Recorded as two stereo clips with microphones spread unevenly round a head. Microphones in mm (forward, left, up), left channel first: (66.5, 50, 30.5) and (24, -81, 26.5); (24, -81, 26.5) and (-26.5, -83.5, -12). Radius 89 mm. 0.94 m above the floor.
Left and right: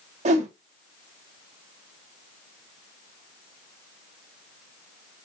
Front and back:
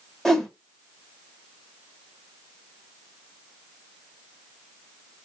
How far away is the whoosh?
About 0.9 m.